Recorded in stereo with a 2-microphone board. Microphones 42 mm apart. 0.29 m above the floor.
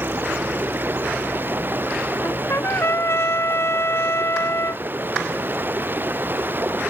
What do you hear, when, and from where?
0.0 s running water: 50° right (ahead or behind)
2.2 s a trumpet: 80° left